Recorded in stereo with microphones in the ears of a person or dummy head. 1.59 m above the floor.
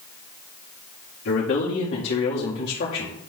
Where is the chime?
I don't hear a chime.